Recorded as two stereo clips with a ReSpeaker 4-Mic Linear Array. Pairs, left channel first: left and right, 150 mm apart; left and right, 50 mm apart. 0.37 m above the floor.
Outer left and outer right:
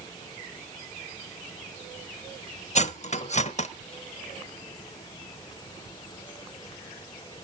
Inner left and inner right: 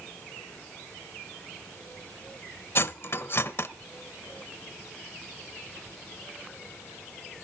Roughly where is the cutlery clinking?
Left.